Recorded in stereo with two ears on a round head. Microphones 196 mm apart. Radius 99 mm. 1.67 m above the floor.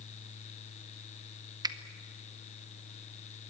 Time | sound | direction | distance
1.6 | a finger snap | 20° right (ahead or behind) | 0.9 m